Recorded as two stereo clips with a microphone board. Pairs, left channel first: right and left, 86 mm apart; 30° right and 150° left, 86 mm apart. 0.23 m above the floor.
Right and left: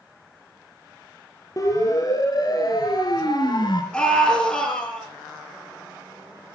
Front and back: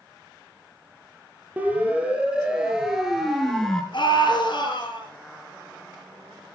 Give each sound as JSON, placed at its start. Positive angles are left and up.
{"t": 1.6, "sound": "a siren", "azimuth_deg": -135, "distance_m": 4.0}
{"t": 3.9, "sound": "a scream", "azimuth_deg": -15, "distance_m": 4.5}